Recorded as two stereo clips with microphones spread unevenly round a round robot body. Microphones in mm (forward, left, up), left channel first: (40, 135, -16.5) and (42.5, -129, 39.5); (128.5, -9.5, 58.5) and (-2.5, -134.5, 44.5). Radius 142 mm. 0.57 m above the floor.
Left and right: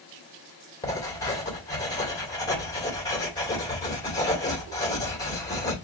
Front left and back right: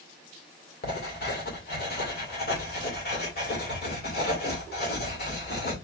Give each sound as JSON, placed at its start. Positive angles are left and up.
{"t": 0.8, "sound": "writing", "azimuth_deg": 20, "distance_m": 2.0}